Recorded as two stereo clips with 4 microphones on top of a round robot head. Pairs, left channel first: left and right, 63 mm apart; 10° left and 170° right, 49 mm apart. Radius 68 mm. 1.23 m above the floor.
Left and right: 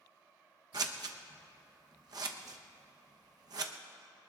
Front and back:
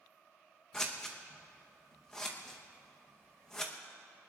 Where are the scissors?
70° right, 1.0 m.